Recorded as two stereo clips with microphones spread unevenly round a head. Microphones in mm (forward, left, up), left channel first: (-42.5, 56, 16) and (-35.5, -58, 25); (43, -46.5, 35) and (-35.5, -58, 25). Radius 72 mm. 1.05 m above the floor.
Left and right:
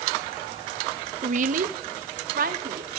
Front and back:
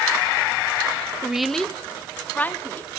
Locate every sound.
1.2 s a woman speaking: 100° right, 0.7 m; by 2.9 s 60° right, 2.5 m